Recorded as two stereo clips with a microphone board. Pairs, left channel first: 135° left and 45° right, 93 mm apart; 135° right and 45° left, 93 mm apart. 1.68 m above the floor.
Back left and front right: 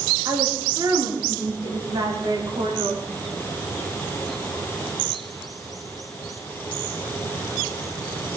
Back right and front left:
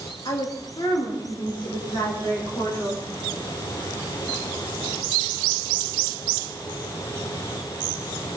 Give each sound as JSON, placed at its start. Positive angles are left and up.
{"t": 0.2, "sound": "a woman speaking", "azimuth_deg": -95, "distance_m": 3.5}